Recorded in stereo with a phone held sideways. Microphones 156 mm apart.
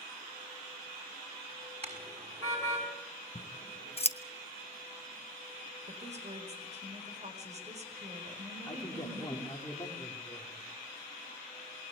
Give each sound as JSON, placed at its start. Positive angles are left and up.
{"t": 1.8, "sound": "a car horn", "side_deg": -40, "distance_m": 6.0}
{"t": 3.4, "sound": "scissors", "side_deg": 40, "distance_m": 1.0}
{"t": 5.9, "sound": "a woman speaking", "side_deg": -45, "distance_m": 4.5}
{"t": 8.7, "sound": "a man speaking", "side_deg": 20, "distance_m": 4.0}